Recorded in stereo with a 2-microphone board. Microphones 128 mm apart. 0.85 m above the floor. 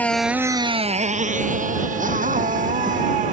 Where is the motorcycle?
10° left (ahead or behind); by 3.3 s 80° right.